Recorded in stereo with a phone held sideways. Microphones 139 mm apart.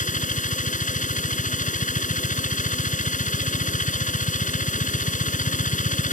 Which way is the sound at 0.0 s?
70° left (ahead or behind).